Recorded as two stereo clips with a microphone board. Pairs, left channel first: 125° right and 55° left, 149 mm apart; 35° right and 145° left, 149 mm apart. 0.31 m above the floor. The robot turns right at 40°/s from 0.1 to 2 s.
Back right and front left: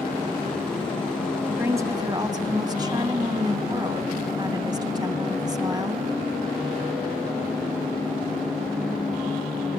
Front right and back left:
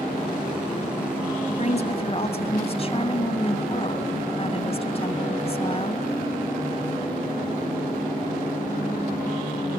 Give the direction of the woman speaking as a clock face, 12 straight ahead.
1 o'clock.